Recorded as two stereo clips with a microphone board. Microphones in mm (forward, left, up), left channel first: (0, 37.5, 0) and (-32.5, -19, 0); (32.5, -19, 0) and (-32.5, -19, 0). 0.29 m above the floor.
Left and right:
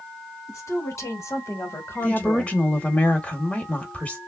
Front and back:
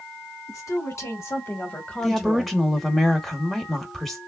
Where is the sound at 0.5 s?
25° left, 2.5 m; by 2.6 s 130° left, 1.1 m.